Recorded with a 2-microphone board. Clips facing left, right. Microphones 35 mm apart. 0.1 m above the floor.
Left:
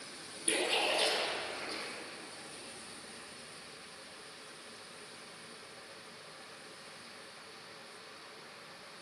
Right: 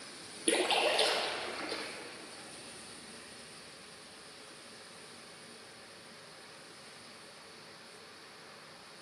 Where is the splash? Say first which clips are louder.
Right 3 dB; 50° right (ahead or behind), 2.5 m.